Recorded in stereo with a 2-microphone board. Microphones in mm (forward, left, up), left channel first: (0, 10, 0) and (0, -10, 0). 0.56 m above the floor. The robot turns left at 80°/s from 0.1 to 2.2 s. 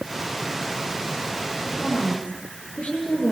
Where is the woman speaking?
130° left, 10 m; by 3.3 s 90° left, 10 m.